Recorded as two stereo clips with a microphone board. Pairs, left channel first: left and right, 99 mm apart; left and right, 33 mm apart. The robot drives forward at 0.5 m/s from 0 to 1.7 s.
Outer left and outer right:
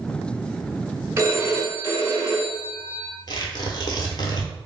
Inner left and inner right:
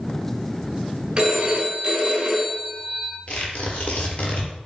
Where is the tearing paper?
45° left (ahead or behind), 0.9 m.